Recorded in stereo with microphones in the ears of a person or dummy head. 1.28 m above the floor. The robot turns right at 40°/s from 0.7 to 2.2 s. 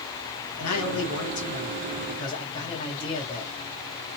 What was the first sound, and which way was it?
A man speaking, 100° left.